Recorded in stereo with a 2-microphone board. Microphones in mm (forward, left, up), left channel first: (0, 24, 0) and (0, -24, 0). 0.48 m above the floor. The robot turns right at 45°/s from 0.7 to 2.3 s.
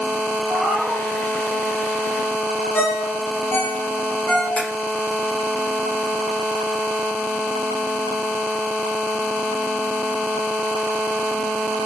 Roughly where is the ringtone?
Left.